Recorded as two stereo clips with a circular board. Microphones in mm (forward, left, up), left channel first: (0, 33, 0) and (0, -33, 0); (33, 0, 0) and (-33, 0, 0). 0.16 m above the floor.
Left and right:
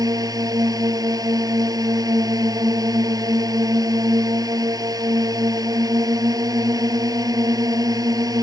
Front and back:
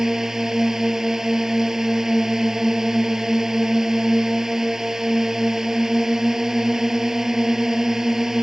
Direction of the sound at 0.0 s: 95° right.